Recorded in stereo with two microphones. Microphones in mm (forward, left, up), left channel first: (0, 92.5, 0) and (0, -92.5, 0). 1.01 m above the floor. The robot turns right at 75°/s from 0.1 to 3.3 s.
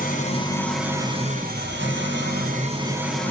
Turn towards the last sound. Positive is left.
turn(degrees=10)